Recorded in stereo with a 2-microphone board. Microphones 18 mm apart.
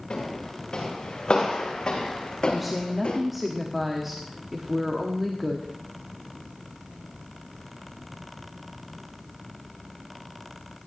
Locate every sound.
0.1 s footsteps: 55° left (ahead or behind), 5.5 m; by 3.2 s 70° left (ahead or behind), 2.5 m
2.5 s a woman speaking: 5° right (ahead or behind), 1.3 m